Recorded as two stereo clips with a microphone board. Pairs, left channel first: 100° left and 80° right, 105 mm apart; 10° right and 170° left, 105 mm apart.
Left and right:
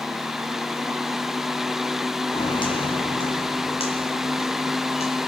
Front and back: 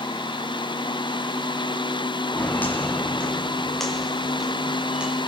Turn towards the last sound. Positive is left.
turn(degrees=90)